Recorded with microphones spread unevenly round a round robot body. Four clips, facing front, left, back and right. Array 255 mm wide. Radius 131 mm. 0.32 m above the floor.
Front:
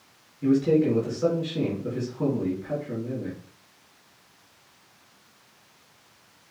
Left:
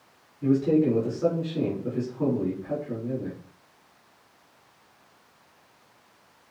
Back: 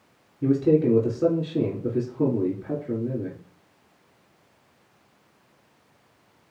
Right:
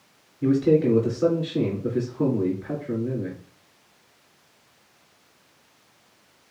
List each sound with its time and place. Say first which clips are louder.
0.4 s a man speaking: right 2 dB, back 1 dB; 155° right, 4 m